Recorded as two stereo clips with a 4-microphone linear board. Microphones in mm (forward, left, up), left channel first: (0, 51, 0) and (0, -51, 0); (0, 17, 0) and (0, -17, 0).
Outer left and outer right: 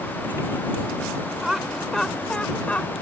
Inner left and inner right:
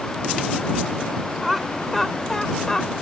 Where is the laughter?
5° right (ahead or behind); by 2.9 s 15° left (ahead or behind).